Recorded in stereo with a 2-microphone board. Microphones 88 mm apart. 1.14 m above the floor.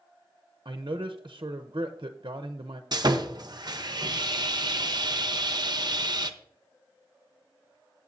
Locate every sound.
0.7 s a man speaking: 55° right (ahead or behind), 0.7 m
2.9 s sawing: 50° right (ahead or behind), 0.8 m